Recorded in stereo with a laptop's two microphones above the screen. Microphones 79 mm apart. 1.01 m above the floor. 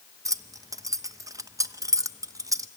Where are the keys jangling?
45° right (ahead or behind), 0.6 m.